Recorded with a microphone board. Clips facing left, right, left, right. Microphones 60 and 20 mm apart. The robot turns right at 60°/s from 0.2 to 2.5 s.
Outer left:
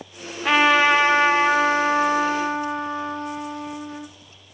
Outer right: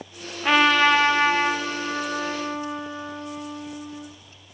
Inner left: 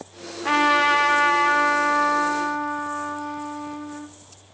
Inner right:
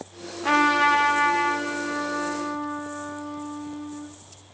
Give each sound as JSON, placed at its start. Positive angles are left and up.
{"t": 0.4, "sound": "a trumpet", "azimuth_deg": 0, "distance_m": 0.7}